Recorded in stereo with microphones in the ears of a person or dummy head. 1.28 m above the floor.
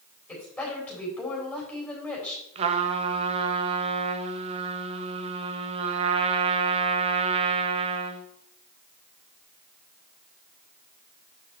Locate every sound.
0.3 s a woman speaking: 10° left (ahead or behind), 4 m
2.5 s a trumpet: 35° right (ahead or behind), 0.7 m